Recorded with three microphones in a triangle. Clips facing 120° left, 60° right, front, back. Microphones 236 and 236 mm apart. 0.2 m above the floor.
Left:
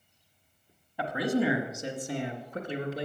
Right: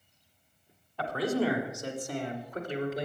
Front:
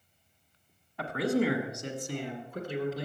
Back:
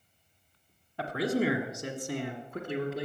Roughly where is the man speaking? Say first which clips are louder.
Left 1 dB, front 1 dB; behind.